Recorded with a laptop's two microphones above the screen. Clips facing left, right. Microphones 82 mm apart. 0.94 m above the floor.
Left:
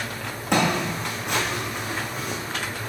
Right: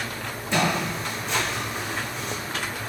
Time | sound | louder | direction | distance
0.5 | footsteps | left 2 dB | 65° left (ahead or behind) | 2.5 m